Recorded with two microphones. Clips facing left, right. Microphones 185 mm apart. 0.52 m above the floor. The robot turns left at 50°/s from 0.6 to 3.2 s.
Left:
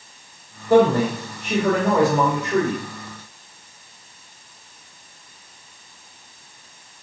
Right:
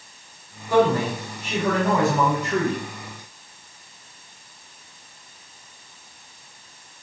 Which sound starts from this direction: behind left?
A man speaking, at 0.7 s.